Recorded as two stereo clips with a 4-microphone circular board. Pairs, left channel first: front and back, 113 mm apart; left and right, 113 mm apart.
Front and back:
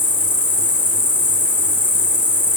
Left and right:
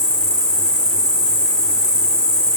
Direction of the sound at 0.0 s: 65° left.